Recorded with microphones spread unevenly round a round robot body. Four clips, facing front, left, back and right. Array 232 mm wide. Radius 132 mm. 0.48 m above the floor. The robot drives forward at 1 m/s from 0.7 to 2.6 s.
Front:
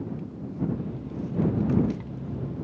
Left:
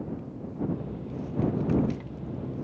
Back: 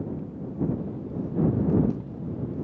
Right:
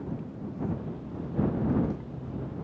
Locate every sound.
Only background noise.